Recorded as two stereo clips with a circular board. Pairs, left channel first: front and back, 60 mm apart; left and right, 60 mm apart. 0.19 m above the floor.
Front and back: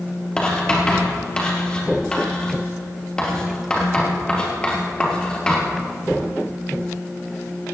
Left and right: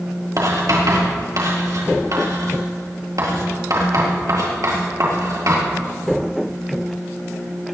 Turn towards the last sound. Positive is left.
turn(degrees=-75)